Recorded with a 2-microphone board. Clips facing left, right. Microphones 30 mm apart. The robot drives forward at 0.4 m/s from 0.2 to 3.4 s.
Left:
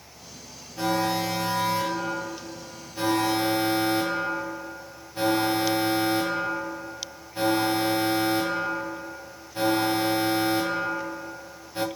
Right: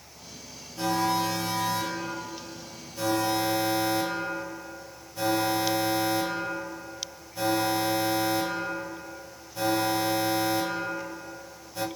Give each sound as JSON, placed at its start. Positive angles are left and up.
{"t": 0.8, "sound": "an alarm", "side_deg": 25, "distance_m": 2.5}